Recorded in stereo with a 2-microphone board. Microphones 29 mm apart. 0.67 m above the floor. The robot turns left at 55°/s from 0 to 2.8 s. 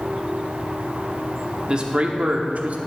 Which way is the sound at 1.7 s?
35° right.